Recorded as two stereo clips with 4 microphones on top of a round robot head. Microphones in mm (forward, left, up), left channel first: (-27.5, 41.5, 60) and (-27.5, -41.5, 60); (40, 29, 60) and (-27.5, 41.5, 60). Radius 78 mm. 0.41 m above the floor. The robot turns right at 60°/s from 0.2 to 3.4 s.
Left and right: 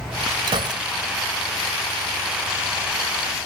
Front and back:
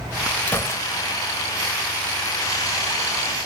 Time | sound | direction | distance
0.5 | a gunshot | 75° right | ?